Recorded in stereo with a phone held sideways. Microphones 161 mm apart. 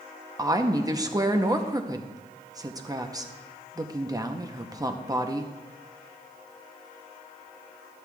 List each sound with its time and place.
0.4 s a woman speaking: 20° right (ahead or behind), 0.7 m